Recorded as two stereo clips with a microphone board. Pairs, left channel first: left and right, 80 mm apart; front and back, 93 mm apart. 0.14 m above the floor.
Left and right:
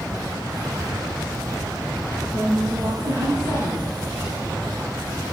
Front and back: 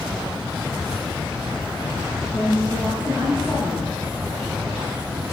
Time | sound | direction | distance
2.3 | a woman speaking | 120° right | 4 m